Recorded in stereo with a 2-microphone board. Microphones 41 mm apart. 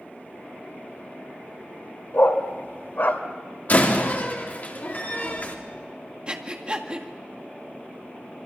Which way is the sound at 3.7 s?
45° left (ahead or behind).